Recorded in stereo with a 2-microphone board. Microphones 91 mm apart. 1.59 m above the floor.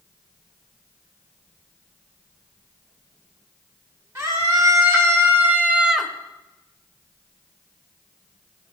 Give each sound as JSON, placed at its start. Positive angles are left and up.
{"t": 4.2, "sound": "a scream", "side_deg": -35, "distance_m": 2.0}